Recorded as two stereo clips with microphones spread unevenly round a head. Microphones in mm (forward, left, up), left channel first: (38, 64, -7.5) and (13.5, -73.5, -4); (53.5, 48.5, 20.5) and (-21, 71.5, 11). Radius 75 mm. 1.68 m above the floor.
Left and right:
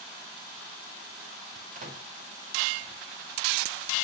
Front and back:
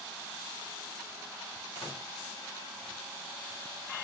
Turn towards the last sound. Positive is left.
turn(degrees=-75)